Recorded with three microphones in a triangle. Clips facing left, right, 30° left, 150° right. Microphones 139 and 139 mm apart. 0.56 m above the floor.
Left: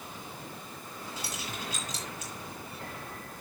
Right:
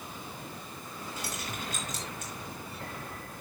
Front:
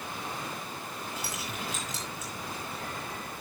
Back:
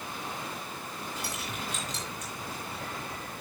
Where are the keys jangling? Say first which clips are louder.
Right 1 dB, even; 55° right, 7.5 m.